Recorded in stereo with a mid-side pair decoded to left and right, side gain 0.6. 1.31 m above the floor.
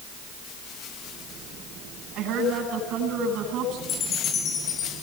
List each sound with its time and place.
2.1 s a woman speaking: 60° right, 10 m
3.9 s a chime: 55° left, 9 m